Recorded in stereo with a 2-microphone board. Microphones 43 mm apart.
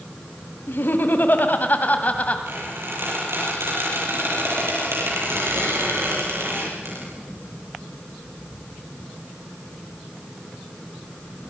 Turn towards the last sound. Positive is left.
turn(degrees=-80)